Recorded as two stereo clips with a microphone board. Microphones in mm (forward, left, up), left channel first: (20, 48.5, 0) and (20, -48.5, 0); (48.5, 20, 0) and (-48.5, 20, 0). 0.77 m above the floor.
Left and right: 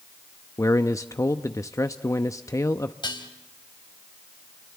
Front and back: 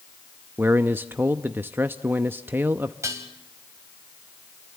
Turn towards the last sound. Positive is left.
turn(degrees=125)